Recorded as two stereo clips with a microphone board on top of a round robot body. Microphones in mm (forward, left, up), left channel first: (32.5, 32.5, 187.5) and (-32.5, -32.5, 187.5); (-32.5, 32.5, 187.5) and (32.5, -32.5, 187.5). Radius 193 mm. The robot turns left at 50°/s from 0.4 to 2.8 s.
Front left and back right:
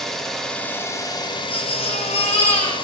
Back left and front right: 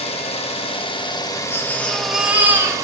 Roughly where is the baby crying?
Left.